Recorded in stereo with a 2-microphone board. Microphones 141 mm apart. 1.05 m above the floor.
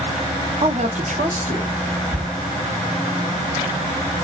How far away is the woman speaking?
About 0.6 m.